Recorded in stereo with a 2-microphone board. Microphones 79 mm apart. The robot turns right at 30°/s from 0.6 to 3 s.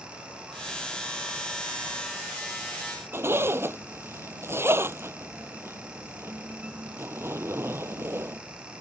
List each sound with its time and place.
3.1 s a zipper: 30° right (ahead or behind)